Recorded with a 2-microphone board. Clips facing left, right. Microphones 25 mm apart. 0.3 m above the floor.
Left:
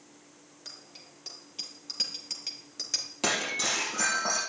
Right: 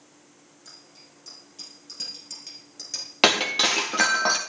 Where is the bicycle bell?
40° left (ahead or behind), 6.5 m; by 3.1 s 15° left (ahead or behind), 3.5 m.